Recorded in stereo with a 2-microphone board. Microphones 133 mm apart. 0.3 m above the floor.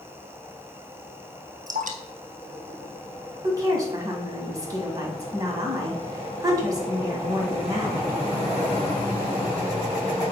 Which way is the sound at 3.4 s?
30° right (ahead or behind).